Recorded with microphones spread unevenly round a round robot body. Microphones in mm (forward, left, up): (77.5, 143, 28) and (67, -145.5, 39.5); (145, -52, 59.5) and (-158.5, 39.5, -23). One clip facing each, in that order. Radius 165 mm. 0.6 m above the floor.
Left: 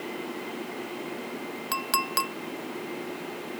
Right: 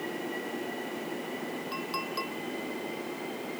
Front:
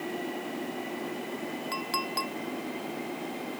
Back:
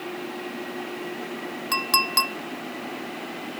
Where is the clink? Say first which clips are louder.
Left 1 dB, back 3 dB; 105° left.